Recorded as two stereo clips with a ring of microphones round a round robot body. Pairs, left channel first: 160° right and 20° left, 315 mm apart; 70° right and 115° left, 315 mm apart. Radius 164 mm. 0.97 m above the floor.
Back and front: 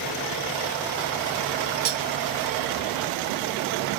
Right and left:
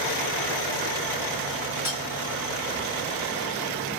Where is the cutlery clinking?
30° left, 0.8 m.